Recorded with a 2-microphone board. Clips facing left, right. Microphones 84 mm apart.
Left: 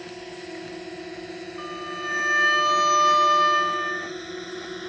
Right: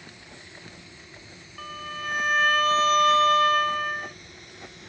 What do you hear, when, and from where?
0.0 s a drone: 70° left (ahead or behind); by 4.9 s 65° left (ahead or behind)
1.6 s a violin: 5° left (ahead or behind)